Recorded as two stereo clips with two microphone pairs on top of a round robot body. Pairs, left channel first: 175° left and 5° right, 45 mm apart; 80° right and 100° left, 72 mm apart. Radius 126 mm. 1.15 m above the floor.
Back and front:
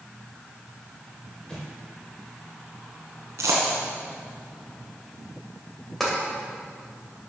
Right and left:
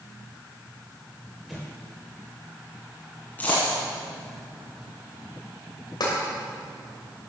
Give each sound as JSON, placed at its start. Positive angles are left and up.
{"t": 1.5, "sound": "an explosion", "azimuth_deg": -140, "distance_m": 0.9}
{"t": 3.4, "sound": "a dropped coin", "azimuth_deg": -15, "distance_m": 1.6}
{"t": 6.0, "sound": "tapping", "azimuth_deg": -100, "distance_m": 2.5}